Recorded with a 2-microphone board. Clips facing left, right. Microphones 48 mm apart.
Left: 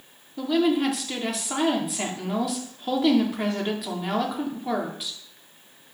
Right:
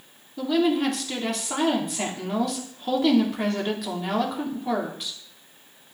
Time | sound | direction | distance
0.4 | a woman speaking | 5° left (ahead or behind) | 1.1 m